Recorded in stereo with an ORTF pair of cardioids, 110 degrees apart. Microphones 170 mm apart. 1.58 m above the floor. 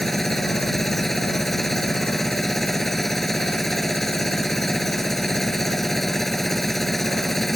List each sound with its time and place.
0.0 s a machine running: straight ahead